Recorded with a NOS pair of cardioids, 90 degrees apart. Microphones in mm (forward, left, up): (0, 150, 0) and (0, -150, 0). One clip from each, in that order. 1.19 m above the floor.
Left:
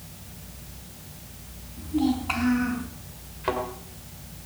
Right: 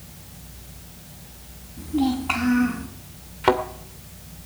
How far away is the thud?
About 2 m.